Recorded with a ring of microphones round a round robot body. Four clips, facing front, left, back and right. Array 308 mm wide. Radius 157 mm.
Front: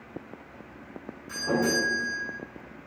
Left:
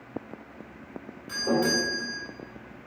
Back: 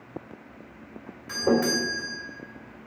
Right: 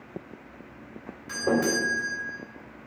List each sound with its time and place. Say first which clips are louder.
1.3 s a doorbell: right 1 dB, back 3 dB; 170° right, 2.5 m